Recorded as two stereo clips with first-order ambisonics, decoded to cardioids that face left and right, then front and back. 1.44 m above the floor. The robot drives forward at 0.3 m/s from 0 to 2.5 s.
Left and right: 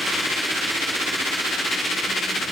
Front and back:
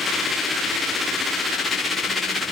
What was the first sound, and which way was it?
Only background noise.